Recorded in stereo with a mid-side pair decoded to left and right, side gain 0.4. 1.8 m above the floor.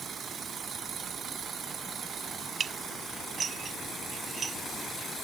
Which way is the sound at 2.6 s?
50° right.